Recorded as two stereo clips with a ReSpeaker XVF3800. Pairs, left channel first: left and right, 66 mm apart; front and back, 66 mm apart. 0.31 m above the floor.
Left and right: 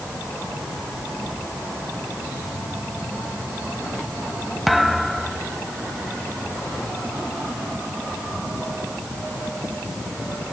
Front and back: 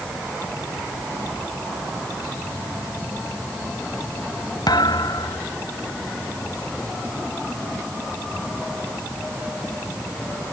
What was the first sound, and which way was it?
A thud, straight ahead.